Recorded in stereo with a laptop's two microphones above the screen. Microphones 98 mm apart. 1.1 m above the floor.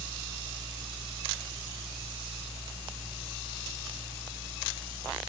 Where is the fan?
10° right (ahead or behind), 9 m.